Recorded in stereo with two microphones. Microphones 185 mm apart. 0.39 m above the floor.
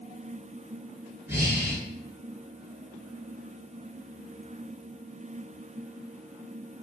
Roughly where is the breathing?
Centre.